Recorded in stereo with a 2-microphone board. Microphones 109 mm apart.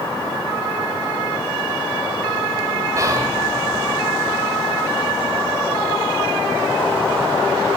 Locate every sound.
3.0 s whispering: 30° right (ahead or behind), 1.9 m